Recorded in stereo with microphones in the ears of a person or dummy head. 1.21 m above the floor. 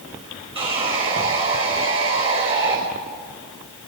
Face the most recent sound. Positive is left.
turn(degrees=-25)  # may be behind; listen again after turning